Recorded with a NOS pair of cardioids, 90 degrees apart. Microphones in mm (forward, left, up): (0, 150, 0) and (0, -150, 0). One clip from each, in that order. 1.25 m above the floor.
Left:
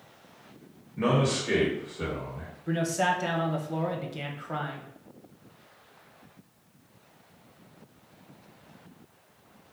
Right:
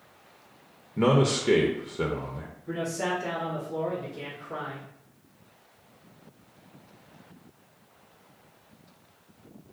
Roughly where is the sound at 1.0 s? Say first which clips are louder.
Right 3 dB; ahead right.